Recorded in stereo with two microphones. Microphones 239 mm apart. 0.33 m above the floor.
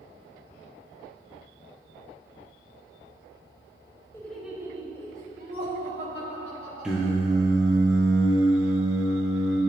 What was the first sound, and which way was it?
Laughter, 10° left (ahead or behind).